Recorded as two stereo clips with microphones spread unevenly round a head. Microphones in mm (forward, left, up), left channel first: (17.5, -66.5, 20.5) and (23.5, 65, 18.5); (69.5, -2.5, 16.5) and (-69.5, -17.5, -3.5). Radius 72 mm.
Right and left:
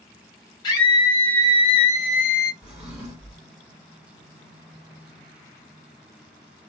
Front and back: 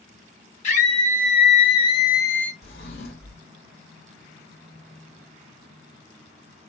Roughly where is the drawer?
Ahead.